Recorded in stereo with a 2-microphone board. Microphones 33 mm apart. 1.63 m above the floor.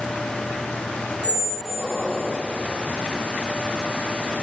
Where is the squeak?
60° right (ahead or behind), 1.7 m.